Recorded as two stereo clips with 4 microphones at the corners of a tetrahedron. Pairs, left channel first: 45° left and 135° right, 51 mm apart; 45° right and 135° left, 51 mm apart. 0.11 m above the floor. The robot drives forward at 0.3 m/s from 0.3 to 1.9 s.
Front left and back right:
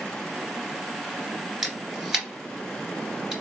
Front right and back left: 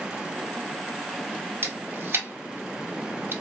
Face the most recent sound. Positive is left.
turn(degrees=145)